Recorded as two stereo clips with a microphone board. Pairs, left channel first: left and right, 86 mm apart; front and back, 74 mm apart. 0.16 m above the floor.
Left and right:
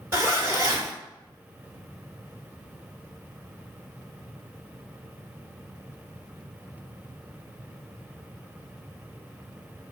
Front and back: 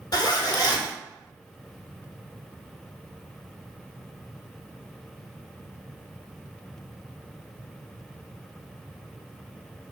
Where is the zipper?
30° right, 1.0 m.